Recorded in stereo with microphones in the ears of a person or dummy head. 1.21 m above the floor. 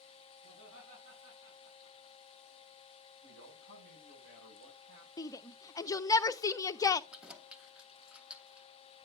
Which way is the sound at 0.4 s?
80° right.